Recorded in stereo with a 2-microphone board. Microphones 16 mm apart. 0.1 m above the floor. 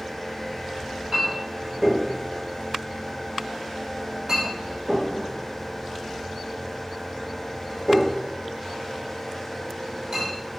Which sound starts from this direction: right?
A clink, at 0.8 s.